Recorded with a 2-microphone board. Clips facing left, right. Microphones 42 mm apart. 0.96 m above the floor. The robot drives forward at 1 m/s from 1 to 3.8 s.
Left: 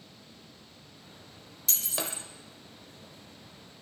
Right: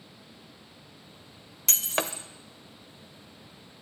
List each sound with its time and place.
1.7 s breaking glass: 60° right (ahead or behind), 1.1 m; by 2.2 s 45° right (ahead or behind), 1.4 m